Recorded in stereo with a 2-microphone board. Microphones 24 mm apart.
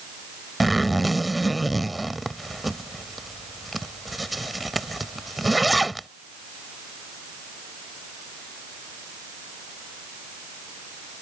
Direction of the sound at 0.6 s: Centre (ahead or behind).